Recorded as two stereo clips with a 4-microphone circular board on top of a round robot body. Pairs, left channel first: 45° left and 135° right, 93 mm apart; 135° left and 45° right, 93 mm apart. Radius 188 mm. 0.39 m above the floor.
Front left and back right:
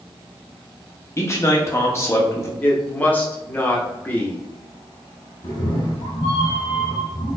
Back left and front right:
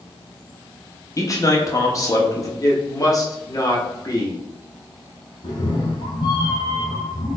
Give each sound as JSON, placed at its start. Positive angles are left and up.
{"t": 1.2, "sound": "a man speaking", "azimuth_deg": 95, "distance_m": 1.1}
{"t": 2.6, "sound": "a woman speaking", "azimuth_deg": 110, "distance_m": 1.6}
{"t": 5.4, "sound": "a cat meowing", "azimuth_deg": 90, "distance_m": 0.5}